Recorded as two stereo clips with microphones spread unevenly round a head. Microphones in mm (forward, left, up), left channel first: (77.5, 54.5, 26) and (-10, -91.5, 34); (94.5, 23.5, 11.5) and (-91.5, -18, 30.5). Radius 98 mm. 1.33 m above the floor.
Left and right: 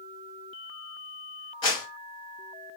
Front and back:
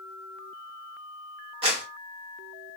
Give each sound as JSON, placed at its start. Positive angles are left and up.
{"t": 1.6, "sound": "a clap", "azimuth_deg": 130, "distance_m": 1.5}